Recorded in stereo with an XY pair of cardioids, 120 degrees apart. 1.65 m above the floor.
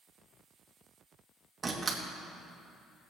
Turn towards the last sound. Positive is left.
turn(degrees=-20)